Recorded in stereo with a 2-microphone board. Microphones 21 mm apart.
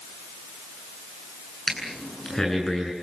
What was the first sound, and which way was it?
Breathing, 20° left (ahead or behind).